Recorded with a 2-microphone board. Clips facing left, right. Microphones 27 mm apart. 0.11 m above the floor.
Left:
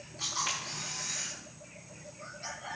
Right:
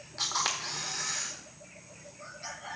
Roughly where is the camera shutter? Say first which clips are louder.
Right 3 dB; right.